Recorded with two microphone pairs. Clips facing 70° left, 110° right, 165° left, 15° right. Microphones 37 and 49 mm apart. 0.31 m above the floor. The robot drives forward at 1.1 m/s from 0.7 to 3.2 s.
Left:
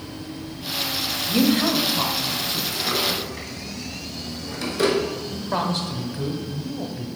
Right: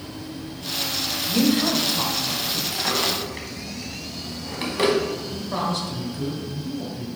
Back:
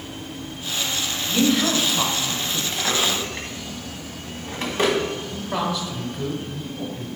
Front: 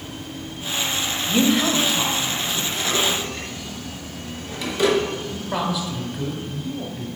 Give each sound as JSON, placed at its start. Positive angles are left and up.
{"t": 1.3, "sound": "a woman speaking", "azimuth_deg": 20, "distance_m": 1.0}
{"t": 2.7, "sound": "a drawer", "azimuth_deg": -145, "distance_m": 1.1}
{"t": 5.3, "sound": "a man speaking", "azimuth_deg": 85, "distance_m": 1.0}